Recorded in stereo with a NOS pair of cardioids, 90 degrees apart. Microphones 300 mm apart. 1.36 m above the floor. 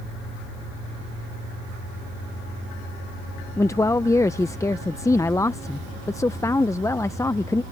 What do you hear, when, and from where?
3.6 s a man speaking: 10° left